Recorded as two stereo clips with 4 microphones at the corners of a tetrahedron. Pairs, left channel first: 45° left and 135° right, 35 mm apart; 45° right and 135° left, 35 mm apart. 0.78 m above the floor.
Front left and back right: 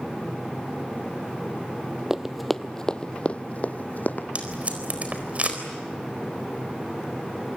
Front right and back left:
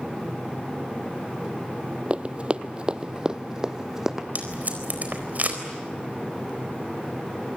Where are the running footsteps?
160° left, 0.9 m; by 4.2 s 60° left, 1.6 m.